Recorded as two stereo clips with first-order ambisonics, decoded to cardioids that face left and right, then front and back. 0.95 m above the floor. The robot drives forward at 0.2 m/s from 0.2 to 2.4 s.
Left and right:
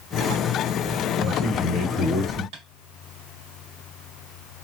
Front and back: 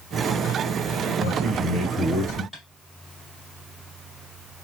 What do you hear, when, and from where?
1.2 s a man speaking: 135° right, 1.1 m; by 2.4 s 150° right, 1.2 m
2.5 s tapping: 90° right, 1.2 m